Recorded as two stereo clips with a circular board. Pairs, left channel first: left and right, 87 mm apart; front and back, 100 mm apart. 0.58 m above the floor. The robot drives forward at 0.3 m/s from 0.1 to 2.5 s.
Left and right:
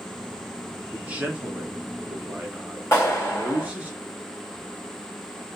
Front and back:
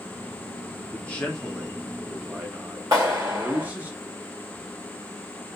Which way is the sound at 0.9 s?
45° right.